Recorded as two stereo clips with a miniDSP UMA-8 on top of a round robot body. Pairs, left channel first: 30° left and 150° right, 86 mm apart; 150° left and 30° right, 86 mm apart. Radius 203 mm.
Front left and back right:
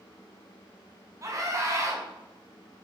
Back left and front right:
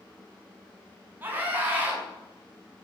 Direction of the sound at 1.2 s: 100° right.